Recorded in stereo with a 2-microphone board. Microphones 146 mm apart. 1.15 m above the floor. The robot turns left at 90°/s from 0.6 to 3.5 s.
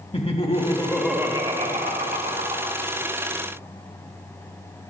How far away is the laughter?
About 2 m.